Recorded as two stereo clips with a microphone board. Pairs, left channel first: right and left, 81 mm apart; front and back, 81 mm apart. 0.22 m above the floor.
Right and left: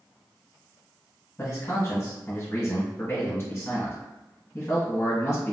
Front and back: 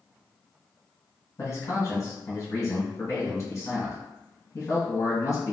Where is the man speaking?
30° right, 1.6 m.